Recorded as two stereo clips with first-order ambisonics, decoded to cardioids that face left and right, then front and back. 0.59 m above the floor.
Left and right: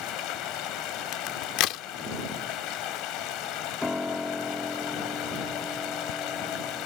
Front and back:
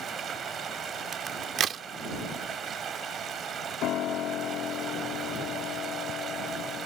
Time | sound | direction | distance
0.0 | running water | 120° left | ?
1.1 | a crack | 120° left | ?
3.8 | a piano | 10° left | ?